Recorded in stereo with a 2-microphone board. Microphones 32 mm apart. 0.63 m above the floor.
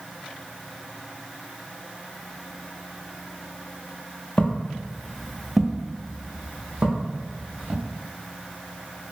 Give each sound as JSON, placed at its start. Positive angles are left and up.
{"t": 4.4, "sound": "footsteps", "side_deg": 40, "distance_m": 0.7}